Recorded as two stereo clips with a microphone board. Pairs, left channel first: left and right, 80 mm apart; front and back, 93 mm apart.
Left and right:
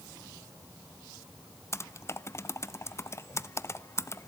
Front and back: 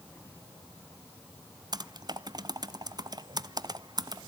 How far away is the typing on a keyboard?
About 0.7 m.